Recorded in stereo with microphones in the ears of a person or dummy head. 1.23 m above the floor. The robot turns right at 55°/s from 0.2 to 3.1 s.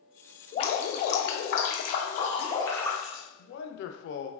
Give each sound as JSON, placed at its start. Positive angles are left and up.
{"t": 0.5, "sound": "dripping", "azimuth_deg": 40, "distance_m": 0.5}
{"t": 3.4, "sound": "a man speaking", "side_deg": 75, "distance_m": 0.6}